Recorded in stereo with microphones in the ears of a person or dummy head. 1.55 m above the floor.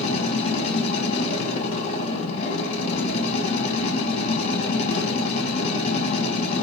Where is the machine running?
35° left (ahead or behind), 0.9 m.